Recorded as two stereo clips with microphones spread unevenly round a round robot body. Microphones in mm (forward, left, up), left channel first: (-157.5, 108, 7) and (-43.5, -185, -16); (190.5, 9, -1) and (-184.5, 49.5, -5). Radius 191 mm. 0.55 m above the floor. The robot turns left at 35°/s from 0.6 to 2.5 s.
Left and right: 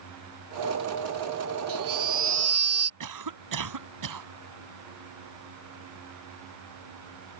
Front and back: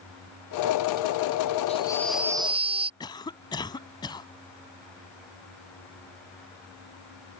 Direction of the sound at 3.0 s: 85° right.